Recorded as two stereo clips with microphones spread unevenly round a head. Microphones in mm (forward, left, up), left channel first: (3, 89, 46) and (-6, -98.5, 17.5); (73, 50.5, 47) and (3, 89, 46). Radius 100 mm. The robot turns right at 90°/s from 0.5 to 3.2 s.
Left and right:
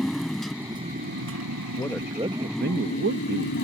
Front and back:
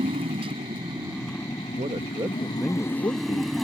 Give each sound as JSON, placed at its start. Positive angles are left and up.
{"t": 0.0, "sound": "a motorcycle", "azimuth_deg": 175}
{"t": 1.8, "sound": "a man speaking", "azimuth_deg": 160}